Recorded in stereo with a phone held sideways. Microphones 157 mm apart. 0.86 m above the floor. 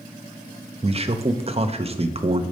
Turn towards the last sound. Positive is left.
turn(degrees=-40)  # may be behind; listen again after turning